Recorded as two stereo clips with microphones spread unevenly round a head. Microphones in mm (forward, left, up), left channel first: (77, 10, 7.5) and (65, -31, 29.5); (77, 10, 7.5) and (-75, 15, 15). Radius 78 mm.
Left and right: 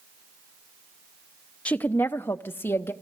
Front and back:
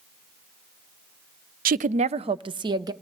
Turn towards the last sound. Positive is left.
turn(degrees=115)